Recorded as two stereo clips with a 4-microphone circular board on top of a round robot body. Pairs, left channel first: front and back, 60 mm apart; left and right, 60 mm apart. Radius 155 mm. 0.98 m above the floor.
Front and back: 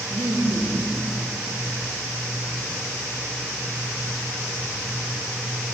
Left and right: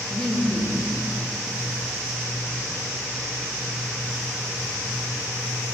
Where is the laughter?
170° left, 4 m.